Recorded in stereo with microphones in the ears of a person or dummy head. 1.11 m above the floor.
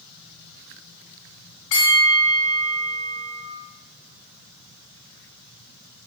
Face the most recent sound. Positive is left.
turn(degrees=70)  # may be behind; listen again after turning